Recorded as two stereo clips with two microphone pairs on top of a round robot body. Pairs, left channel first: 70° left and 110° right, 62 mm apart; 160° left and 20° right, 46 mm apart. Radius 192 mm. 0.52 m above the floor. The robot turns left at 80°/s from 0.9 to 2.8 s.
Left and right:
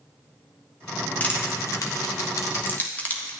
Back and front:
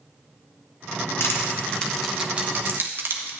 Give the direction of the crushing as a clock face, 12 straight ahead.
7 o'clock.